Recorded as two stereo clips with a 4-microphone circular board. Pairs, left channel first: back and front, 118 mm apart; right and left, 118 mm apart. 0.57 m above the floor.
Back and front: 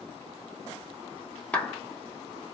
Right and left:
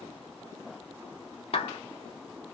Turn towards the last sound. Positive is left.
turn(degrees=-105)